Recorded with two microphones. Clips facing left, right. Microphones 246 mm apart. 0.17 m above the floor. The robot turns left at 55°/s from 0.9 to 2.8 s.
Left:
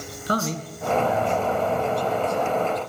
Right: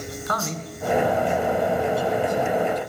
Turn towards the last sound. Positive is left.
turn(degrees=-50)